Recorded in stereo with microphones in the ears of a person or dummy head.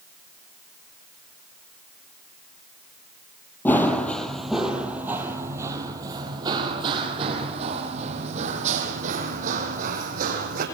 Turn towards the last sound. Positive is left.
turn(degrees=-45)  # may be behind; listen again after turning